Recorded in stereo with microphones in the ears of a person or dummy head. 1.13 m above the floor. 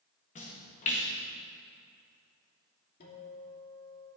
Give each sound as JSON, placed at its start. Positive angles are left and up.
{"t": 0.3, "sound": "a splash", "side_deg": 35, "distance_m": 1.6}
{"t": 3.0, "sound": "a guitar", "side_deg": 55, "distance_m": 2.5}